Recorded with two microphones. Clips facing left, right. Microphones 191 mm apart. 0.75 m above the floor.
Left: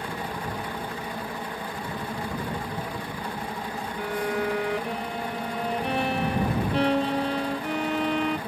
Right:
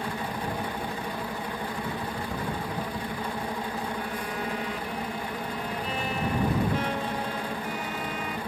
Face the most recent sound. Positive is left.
turn(degrees=60)  # may be behind; listen again after turning